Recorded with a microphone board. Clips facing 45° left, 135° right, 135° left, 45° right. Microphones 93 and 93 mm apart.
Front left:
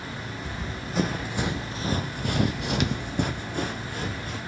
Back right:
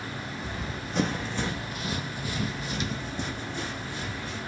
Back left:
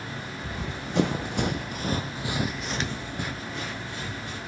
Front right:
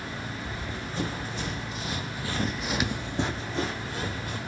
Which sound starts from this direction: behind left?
Running footsteps, at 0.4 s.